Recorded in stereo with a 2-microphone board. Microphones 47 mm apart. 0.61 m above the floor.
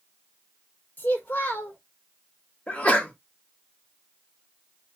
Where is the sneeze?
25° left (ahead or behind), 1.1 m.